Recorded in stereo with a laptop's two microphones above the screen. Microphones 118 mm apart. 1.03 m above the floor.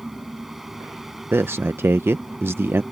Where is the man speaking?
20° right (ahead or behind).